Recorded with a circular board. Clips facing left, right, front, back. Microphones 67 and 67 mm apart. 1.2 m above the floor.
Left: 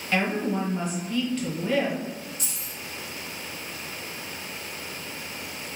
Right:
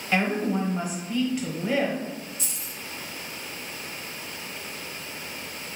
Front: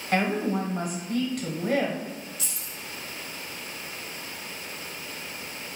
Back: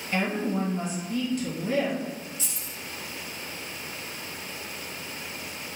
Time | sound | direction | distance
0.1 | a woman speaking | 10° right | 0.8 m
2.4 | keys jangling | 120° left | 1.1 m